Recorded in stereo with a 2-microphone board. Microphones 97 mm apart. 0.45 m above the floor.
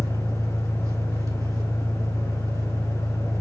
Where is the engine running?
35° right (ahead or behind), 1.9 m.